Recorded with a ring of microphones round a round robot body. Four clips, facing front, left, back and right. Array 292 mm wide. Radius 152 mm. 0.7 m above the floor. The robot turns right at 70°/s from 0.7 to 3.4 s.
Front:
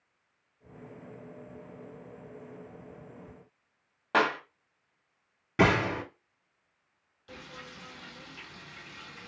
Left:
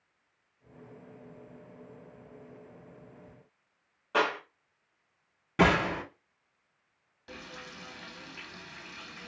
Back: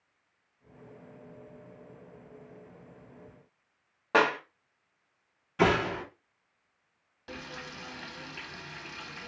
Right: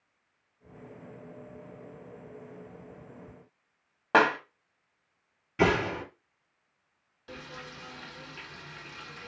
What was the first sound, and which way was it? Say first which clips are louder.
A clap: right 6 dB, back 2 dB; 100° right.